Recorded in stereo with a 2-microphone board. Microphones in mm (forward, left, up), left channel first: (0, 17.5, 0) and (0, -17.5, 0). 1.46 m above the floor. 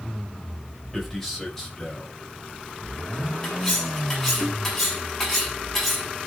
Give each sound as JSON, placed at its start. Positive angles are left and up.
{"t": 0.9, "sound": "a man speaking", "side_deg": 5, "distance_m": 6.5}
{"t": 3.4, "sound": "cutlery clinking", "side_deg": 10, "distance_m": 7.5}